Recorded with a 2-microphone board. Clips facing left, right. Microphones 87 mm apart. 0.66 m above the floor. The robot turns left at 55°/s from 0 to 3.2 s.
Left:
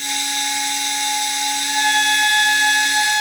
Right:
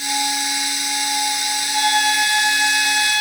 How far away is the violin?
About 8.5 m.